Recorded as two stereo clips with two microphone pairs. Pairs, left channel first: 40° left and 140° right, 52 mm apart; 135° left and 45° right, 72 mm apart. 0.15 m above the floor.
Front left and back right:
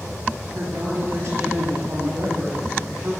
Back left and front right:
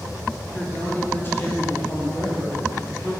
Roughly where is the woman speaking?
Behind right.